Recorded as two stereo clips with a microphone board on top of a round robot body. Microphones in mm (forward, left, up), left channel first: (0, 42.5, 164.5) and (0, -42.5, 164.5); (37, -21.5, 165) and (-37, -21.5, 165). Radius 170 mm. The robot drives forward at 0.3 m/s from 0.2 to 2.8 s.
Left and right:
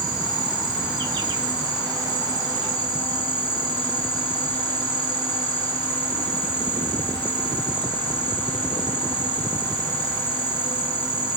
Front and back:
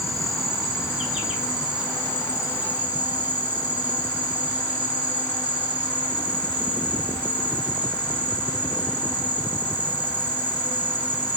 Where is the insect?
90° right, 2 m; by 11.4 s 115° right, 2.5 m.